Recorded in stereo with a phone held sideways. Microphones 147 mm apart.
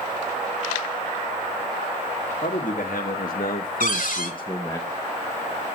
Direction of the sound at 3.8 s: 70° left (ahead or behind).